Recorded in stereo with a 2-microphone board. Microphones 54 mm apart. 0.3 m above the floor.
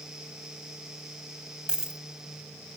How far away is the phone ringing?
No phone ringing in this recording.